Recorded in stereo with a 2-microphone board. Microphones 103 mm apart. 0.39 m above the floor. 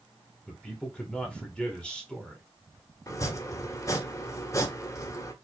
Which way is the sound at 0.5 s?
10° left (ahead or behind).